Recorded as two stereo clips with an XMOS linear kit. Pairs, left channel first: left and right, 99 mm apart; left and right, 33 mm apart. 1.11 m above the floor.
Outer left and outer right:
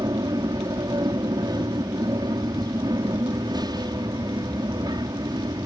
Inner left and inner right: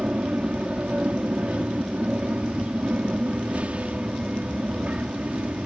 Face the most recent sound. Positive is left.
turn(degrees=-45)  # may be behind; listen again after turning